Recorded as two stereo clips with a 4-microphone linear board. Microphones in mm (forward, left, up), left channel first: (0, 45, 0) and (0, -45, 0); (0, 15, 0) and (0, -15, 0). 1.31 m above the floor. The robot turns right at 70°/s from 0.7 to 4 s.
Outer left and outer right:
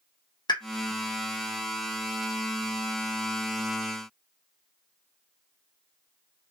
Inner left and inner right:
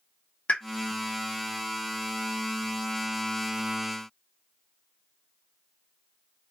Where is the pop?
60° left (ahead or behind), 0.5 m.